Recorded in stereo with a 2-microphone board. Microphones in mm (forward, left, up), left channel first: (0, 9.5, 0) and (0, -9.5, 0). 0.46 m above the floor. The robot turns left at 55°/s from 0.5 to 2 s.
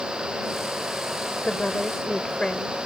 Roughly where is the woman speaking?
Left.